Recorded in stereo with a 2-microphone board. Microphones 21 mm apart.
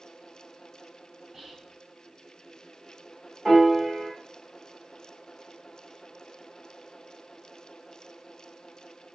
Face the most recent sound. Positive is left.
turn(degrees=-15)  # may be behind; listen again after turning